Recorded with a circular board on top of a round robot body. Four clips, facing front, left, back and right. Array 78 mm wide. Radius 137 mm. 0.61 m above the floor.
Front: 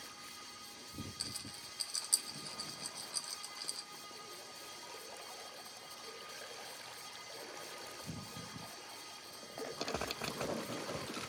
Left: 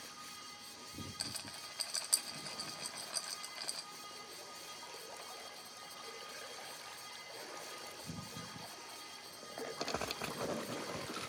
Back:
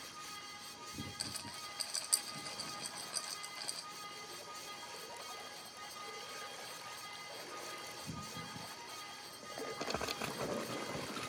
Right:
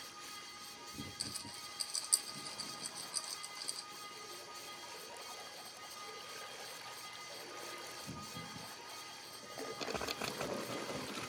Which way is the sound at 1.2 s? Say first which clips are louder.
Left 1 dB, back 3 dB; 115° left.